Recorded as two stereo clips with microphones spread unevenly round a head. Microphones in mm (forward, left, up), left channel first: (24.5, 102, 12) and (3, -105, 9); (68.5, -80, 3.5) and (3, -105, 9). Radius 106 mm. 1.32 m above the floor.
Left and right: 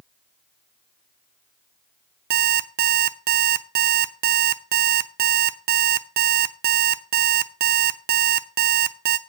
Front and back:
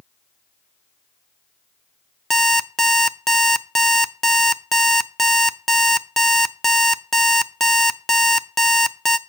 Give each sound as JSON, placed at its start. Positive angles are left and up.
{"t": 2.3, "sound": "an alarm clock", "azimuth_deg": -65, "distance_m": 0.5}